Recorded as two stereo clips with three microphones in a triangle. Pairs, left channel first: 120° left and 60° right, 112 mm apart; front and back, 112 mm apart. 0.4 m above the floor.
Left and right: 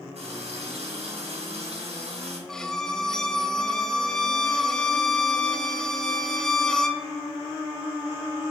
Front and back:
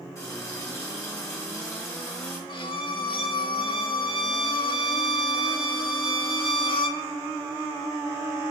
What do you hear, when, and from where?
0.1 s a running tap: 65° right, 3 m
2.5 s a violin: 35° left, 0.6 m